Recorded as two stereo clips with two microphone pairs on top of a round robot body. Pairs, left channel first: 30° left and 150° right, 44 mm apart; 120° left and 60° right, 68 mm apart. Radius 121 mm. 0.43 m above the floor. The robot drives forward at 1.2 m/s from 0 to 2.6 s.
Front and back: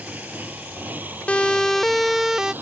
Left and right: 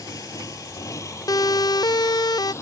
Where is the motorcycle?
155° left; by 2.6 s 165° left.